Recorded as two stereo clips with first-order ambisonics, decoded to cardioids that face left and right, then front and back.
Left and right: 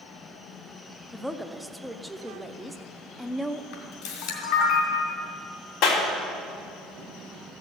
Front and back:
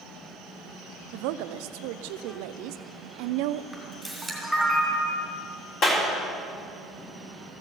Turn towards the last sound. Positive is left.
turn(degrees=45)